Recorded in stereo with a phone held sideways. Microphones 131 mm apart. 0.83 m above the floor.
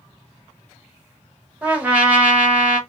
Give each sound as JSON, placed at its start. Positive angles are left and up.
{"t": 1.6, "sound": "a trumpet", "side_deg": -10, "distance_m": 1.0}